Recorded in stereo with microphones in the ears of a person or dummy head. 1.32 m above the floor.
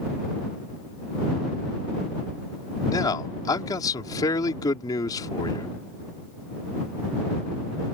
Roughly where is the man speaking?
Left.